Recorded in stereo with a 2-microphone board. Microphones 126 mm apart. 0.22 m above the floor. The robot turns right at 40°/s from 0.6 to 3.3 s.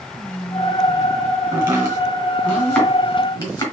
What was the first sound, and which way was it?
Whispering, 25° left (ahead or behind).